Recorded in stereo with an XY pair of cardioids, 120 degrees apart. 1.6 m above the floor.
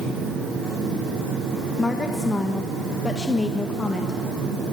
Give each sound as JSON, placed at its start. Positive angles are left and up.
{"t": 0.0, "sound": "a machine running", "azimuth_deg": -70, "distance_m": 7.5}
{"t": 1.8, "sound": "a woman speaking", "azimuth_deg": 20, "distance_m": 1.4}